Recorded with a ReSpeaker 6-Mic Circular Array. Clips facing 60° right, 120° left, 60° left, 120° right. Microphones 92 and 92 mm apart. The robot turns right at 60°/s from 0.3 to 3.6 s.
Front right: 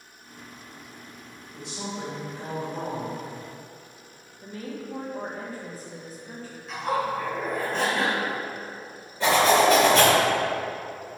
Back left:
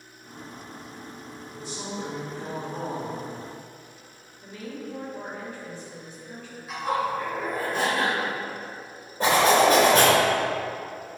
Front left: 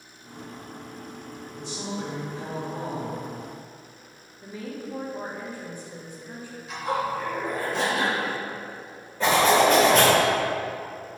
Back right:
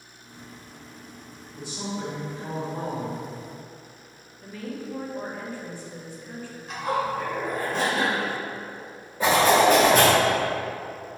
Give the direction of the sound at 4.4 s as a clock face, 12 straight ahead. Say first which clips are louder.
Front right 1 dB, back right 1 dB; 12 o'clock.